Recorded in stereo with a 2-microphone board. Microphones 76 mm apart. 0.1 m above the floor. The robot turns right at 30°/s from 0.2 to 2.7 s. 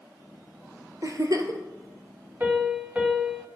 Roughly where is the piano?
Right.